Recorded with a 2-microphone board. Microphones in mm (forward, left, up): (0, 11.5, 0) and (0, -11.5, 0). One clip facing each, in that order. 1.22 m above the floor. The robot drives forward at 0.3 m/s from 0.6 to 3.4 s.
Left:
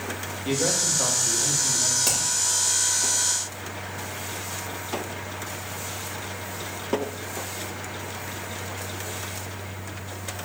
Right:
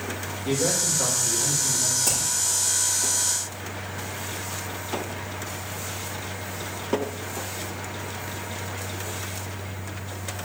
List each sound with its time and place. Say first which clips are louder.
0.5 s a man speaking: even; 25° left (ahead or behind), 2 m; by 1.9 s 20° left (ahead or behind), 2.5 m
2.0 s hammering: left 1 dB; 60° left (ahead or behind), 2.5 m